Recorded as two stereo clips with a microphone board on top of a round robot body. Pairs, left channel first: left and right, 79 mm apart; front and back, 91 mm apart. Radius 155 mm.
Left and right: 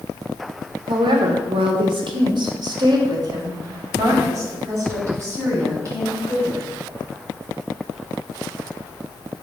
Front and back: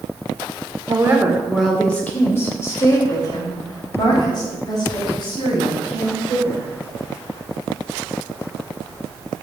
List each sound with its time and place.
0.9 s a woman speaking: 120° right, 1.3 m; by 6.7 s 30° right, 5.5 m